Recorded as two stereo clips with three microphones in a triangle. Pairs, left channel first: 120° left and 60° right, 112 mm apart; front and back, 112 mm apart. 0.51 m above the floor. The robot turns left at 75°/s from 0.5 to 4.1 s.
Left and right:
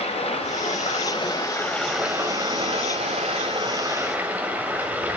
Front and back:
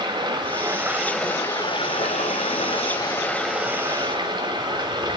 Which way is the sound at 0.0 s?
135° left.